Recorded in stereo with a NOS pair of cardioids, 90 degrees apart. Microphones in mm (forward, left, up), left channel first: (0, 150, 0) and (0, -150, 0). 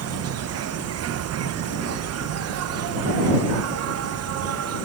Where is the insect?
55° right.